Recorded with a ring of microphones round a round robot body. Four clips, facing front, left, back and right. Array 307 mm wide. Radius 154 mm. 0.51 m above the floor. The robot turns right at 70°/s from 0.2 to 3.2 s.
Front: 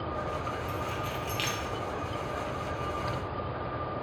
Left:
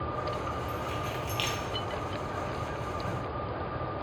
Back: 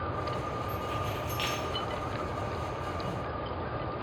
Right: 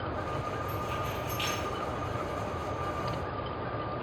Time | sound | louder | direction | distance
0.7 | keys jangling | even, even | straight ahead | 0.6 m